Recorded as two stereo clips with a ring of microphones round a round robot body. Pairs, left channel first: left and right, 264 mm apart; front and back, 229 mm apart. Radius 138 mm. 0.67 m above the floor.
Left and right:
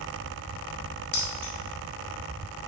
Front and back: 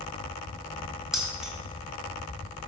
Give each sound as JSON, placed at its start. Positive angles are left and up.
{"t": 1.1, "sound": "keys jangling", "azimuth_deg": 90, "distance_m": 2.0}